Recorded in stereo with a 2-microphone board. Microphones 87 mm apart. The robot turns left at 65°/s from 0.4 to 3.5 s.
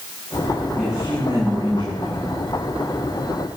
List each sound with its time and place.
0.8 s a man speaking: 5° left, 9.5 m; by 2.4 s 105° right, 9.5 m